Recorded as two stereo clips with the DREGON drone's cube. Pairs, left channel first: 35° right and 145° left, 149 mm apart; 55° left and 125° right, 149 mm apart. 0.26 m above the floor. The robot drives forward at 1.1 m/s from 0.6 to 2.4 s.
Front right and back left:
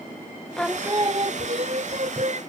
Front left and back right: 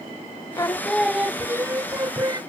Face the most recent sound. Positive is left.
turn(degrees=175)